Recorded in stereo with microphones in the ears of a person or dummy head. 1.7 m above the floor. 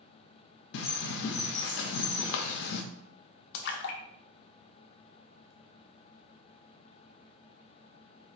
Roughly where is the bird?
Left.